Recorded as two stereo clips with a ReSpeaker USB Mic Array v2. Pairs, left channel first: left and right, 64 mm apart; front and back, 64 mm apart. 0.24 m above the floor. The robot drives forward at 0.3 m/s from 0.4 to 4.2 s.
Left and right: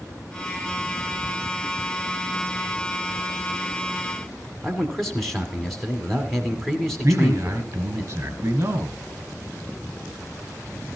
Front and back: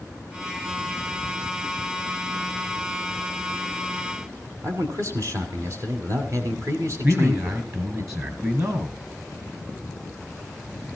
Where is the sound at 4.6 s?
175° left, 1.8 m.